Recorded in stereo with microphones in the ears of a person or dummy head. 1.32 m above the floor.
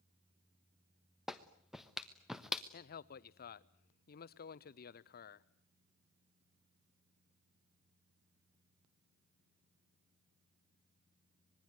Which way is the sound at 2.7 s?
55° left (ahead or behind).